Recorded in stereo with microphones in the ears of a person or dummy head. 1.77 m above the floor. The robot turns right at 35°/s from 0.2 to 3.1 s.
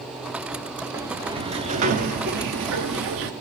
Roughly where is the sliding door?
Behind.